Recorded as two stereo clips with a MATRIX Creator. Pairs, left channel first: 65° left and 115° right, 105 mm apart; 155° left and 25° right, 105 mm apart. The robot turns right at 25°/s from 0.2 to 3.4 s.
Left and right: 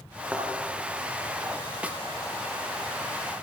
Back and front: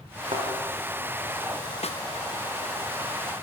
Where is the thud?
40° right, 5.5 m; by 0.5 s 35° right, 5.5 m.